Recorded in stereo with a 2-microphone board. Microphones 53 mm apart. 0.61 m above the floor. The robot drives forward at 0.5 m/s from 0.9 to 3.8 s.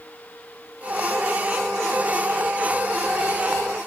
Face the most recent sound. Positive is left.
No sound to turn to.